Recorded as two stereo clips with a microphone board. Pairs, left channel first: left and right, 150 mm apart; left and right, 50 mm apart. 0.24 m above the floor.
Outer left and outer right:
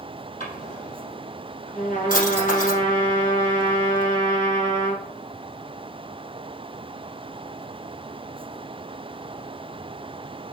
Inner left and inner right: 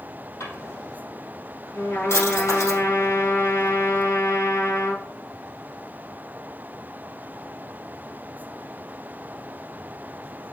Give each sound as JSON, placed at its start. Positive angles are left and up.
{"t": 0.4, "sound": "a drawer", "side_deg": 70, "distance_m": 3.0}
{"t": 1.7, "sound": "a trumpet", "side_deg": 65, "distance_m": 3.5}